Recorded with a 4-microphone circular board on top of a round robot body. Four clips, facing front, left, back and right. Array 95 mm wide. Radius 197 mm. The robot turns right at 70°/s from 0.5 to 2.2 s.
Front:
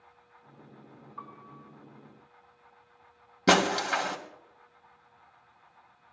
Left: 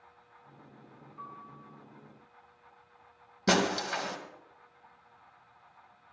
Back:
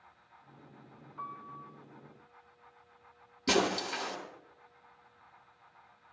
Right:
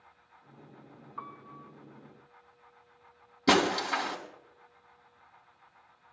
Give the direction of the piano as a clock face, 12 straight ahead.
2 o'clock.